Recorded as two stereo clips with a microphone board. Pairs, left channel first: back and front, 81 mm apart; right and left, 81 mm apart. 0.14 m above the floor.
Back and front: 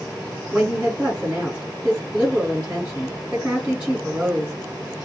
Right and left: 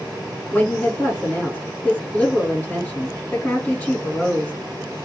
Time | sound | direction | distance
0.5 | a woman speaking | 55° right | 1.6 m